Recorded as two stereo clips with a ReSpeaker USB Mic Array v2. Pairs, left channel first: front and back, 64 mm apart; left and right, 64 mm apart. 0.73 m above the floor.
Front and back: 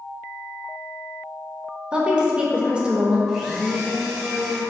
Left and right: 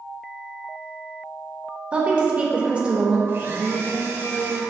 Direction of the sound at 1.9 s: 130° right.